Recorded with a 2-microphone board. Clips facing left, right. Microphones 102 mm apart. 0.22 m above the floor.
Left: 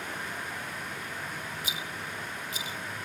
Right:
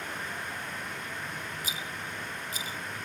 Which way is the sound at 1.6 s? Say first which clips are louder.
Even; 40° right (ahead or behind).